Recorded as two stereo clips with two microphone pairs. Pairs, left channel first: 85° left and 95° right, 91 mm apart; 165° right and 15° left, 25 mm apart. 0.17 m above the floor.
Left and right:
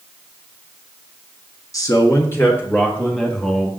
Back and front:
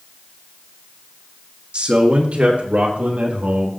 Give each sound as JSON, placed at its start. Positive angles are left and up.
{"t": 1.7, "sound": "a man speaking", "azimuth_deg": 40, "distance_m": 1.9}